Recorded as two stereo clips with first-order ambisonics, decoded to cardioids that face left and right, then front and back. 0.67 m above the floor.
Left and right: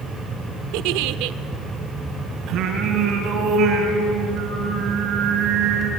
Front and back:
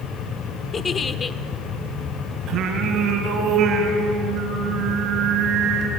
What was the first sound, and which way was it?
A giggle, 70° right.